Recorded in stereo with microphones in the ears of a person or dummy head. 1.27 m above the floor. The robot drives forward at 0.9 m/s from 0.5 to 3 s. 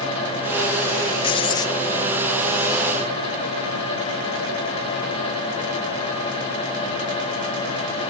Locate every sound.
1.2 s writing: 25° left (ahead or behind), 0.5 m; by 1.8 s 20° left (ahead or behind), 0.7 m